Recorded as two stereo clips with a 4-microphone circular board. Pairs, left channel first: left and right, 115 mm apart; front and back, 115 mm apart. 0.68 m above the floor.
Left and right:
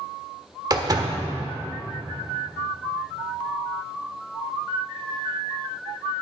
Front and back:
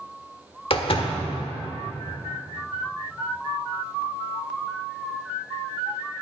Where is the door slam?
35° right, 1.2 m.